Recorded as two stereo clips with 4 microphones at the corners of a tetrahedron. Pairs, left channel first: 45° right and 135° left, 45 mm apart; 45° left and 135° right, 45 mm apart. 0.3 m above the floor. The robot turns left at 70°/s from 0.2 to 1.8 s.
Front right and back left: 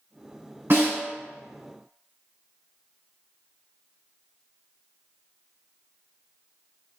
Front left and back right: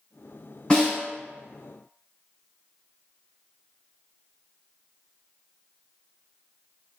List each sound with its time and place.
0.7 s a snare drum: 110° left, 1.8 m; by 1.0 s 95° left, 1.8 m